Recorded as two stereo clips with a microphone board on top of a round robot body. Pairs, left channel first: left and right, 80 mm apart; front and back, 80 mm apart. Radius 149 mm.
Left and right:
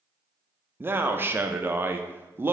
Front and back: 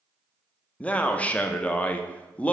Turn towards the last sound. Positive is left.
turn(degrees=-60)